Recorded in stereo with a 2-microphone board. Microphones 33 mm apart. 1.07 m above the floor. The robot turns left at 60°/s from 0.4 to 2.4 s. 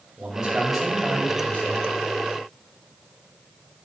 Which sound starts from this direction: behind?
A man speaking, at 0.2 s.